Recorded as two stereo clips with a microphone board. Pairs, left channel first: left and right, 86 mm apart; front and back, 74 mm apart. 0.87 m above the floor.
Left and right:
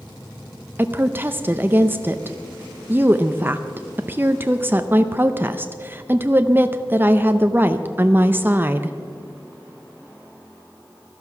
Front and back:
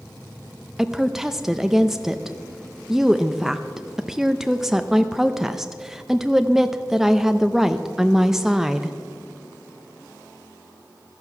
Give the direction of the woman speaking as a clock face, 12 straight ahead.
3 o'clock.